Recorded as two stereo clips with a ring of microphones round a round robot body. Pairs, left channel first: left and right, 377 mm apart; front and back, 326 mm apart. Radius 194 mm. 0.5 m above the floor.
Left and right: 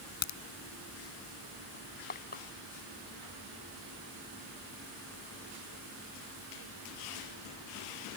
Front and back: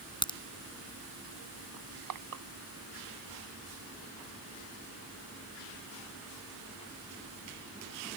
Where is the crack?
75° left.